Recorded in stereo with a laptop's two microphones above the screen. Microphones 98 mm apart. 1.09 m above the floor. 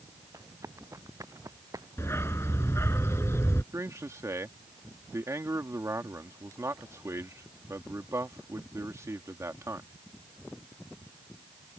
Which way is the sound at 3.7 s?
30° right (ahead or behind).